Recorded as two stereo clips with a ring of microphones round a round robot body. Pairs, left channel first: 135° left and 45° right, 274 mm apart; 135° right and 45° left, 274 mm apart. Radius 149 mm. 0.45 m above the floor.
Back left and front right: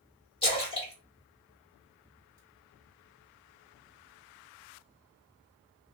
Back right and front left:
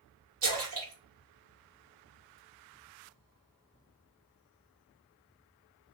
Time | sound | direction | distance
0.4 | a splash | 65° left | 1.9 m